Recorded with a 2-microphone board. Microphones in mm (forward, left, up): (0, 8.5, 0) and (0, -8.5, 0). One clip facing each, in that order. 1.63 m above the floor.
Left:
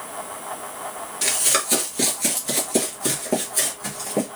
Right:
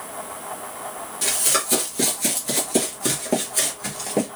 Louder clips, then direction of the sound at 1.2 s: Left 1 dB; 25° left (ahead or behind).